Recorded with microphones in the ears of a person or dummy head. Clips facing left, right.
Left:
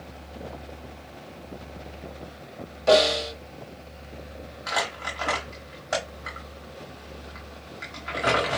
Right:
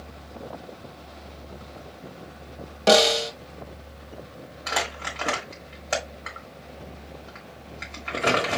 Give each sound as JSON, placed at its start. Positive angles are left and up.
{"t": 2.9, "sound": "a snare drum", "side_deg": -85, "distance_m": 1.1}
{"t": 4.7, "sound": "crumpling", "side_deg": -35, "distance_m": 1.1}